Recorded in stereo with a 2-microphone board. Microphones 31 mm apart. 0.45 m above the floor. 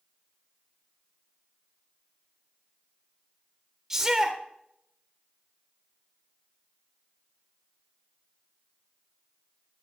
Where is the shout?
15° right (ahead or behind), 1.4 m.